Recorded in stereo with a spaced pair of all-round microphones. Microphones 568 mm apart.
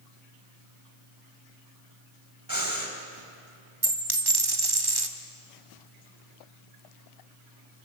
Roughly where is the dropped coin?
Right.